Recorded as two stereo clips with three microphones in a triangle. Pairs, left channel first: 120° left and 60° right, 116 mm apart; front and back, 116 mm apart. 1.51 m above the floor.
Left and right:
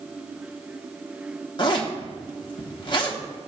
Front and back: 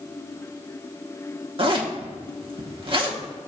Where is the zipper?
155° left, 1.3 m.